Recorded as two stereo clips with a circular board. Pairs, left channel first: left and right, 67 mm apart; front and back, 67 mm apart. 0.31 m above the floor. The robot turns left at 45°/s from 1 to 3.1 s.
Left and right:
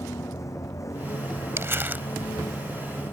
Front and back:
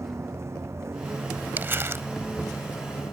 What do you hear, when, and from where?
0.0 s a vehicle: 130° left; by 3.1 s 40° left
1.6 s crumpling: 125° right; by 2.0 s 150° right